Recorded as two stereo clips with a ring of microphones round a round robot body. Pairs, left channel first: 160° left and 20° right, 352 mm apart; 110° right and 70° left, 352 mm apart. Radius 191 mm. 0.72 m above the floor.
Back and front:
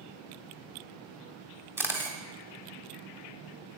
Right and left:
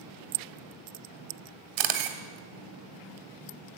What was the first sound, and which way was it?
A camera shutter, 60° left.